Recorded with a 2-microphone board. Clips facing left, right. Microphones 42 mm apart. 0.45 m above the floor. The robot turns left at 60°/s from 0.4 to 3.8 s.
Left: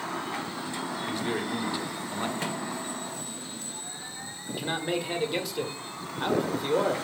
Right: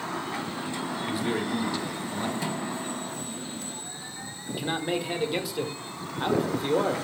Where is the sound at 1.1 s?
160° right, 1.5 m; by 2.3 s 130° left, 1.5 m.